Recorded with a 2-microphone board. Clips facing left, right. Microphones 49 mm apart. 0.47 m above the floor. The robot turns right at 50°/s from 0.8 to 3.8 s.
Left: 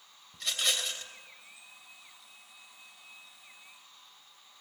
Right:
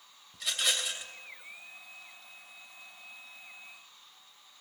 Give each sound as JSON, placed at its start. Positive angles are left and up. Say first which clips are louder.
{"t": 0.3, "sound": "a rattle", "louder": "even", "side_deg": 0, "distance_m": 2.5}